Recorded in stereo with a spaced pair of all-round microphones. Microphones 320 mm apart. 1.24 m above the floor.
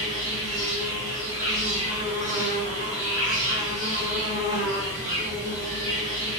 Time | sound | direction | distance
0.0 | an insect | 40° right (ahead or behind) | 2 m